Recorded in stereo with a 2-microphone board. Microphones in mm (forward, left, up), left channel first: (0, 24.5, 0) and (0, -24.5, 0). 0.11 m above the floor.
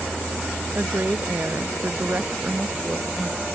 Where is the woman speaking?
45° right (ahead or behind).